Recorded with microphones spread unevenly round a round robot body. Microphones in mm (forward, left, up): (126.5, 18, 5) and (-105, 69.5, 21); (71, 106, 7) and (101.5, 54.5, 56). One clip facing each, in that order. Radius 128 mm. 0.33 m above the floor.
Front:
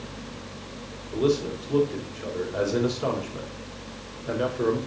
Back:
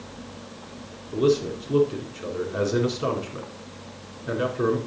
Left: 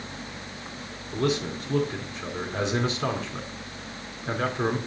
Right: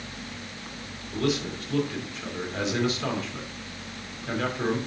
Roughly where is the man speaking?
Left.